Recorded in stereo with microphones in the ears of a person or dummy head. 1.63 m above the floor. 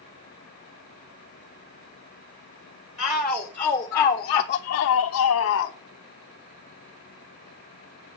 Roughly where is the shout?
Centre.